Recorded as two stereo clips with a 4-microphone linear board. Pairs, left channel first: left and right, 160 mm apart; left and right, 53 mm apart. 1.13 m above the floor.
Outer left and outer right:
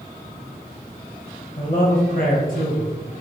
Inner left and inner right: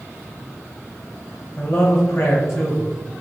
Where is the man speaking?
55° left (ahead or behind), 1.4 m.